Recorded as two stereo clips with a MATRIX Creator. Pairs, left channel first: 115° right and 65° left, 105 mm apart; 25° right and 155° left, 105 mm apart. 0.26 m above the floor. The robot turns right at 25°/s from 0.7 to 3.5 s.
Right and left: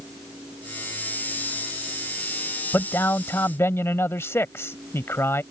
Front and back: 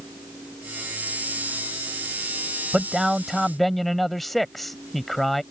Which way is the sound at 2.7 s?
130° right.